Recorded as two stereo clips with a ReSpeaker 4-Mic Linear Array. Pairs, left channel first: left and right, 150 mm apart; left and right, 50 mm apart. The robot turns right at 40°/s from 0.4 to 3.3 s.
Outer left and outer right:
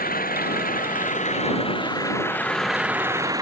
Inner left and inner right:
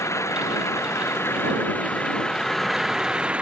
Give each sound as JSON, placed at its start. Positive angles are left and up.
{"t": 0.0, "sound": "an engine running", "azimuth_deg": 90}